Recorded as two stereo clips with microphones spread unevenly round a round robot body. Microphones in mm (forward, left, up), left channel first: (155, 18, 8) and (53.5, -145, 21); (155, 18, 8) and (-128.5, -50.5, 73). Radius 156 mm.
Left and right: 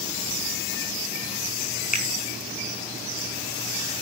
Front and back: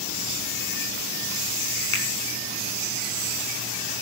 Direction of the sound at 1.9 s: 15° left.